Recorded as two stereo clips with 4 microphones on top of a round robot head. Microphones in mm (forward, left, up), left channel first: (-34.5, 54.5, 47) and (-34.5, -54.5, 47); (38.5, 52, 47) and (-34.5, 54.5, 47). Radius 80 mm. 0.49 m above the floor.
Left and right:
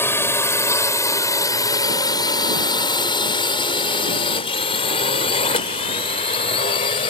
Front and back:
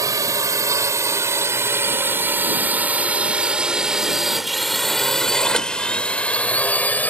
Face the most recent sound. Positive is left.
turn(degrees=60)